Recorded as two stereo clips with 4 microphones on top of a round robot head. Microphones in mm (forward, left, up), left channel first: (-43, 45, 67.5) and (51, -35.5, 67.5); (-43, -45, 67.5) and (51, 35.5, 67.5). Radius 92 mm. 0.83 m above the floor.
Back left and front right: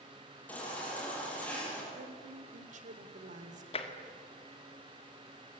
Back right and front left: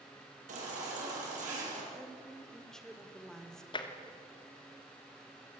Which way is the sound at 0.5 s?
60° left.